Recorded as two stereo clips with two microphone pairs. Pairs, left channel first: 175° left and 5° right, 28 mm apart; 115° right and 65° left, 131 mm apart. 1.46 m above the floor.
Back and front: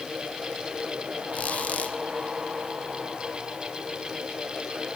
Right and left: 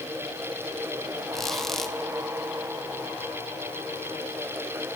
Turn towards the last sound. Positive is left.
turn(degrees=160)